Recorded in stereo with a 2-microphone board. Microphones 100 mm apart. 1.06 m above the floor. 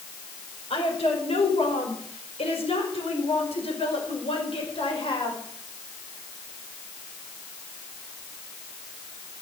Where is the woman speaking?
70° left (ahead or behind), 5 m; by 5.4 s 55° left (ahead or behind), 5 m.